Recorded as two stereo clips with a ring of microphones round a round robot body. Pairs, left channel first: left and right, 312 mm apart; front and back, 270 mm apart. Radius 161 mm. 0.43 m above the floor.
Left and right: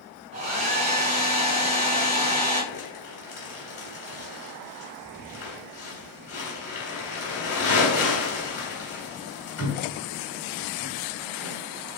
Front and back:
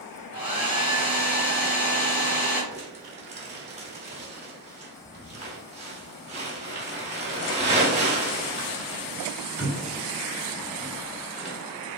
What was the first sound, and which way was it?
A hair dryer, 25° right.